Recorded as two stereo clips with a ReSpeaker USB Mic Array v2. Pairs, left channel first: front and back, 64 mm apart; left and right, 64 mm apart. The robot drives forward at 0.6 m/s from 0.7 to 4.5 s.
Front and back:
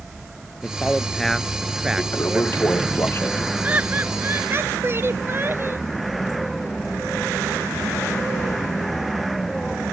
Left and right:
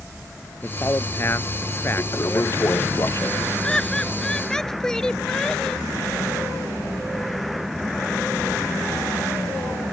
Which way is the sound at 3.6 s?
155° left.